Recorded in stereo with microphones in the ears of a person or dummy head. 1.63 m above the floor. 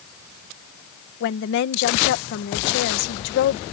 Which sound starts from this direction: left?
A woman speaking, at 1.2 s.